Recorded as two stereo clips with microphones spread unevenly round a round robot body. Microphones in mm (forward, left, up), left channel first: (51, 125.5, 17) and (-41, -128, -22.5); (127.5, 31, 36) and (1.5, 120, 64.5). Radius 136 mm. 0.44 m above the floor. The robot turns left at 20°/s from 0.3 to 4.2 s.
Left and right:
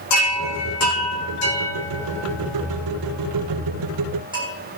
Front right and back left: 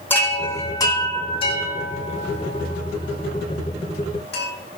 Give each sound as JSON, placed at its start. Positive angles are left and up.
{"t": 0.1, "sound": "a chime", "azimuth_deg": 45, "distance_m": 6.0}